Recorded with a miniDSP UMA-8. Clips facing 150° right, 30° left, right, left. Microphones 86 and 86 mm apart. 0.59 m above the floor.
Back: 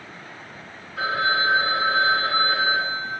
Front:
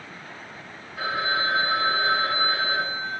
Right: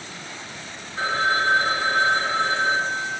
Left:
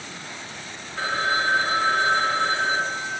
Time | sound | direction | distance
1.0 | a phone ringing | straight behind | 1.1 m